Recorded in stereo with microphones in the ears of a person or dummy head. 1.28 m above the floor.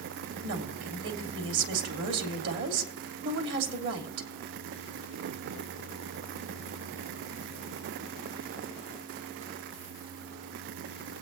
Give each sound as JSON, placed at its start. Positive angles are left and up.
{"t": 0.4, "sound": "a woman speaking", "side_deg": -60, "distance_m": 3.0}